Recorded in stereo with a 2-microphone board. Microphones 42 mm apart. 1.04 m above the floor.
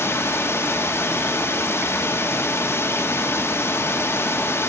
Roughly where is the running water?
Left.